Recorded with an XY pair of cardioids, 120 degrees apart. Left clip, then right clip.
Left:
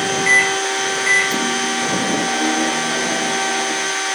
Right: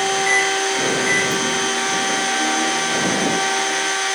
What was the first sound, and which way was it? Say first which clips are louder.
A microwave: left 6 dB; 30° left.